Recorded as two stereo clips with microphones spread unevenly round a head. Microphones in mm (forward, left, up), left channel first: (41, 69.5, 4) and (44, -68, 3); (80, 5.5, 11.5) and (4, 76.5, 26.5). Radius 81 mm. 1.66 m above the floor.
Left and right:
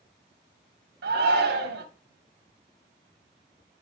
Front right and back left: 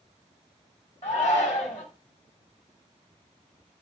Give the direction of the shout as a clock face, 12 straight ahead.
4 o'clock.